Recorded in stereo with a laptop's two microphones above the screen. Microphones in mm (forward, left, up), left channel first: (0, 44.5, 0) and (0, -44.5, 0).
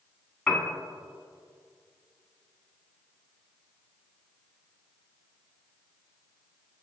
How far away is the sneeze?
No sneeze in this recording.